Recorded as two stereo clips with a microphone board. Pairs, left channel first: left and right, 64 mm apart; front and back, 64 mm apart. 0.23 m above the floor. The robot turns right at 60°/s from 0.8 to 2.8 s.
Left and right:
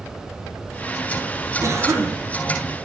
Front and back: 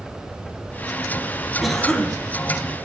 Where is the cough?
90° right, 1.5 m; by 2.2 s 55° right, 1.5 m.